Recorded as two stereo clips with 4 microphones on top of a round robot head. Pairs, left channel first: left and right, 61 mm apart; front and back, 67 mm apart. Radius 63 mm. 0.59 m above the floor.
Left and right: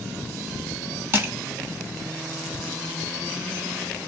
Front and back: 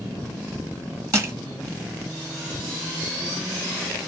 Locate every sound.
1.1 s crushing: 135° right, 1.8 m